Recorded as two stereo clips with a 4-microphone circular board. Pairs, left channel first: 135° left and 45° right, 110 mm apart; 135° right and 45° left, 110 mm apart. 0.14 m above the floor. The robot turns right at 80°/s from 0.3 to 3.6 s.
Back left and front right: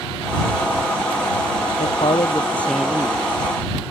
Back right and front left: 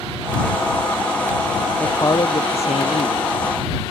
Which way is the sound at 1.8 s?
145° left.